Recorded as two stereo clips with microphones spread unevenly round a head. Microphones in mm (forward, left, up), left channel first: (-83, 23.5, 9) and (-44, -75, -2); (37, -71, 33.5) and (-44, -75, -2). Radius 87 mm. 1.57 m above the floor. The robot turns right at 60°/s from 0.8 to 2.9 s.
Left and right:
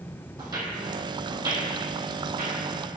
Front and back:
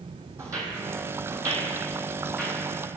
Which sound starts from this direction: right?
Footsteps, at 0.4 s.